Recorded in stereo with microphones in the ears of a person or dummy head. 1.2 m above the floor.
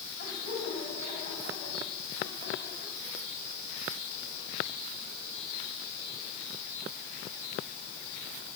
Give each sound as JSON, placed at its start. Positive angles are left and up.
{"t": 0.2, "sound": "laughter", "side_deg": 40, "distance_m": 8.5}